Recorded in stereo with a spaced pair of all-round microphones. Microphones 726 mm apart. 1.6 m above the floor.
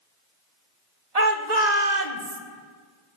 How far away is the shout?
About 1.4 m.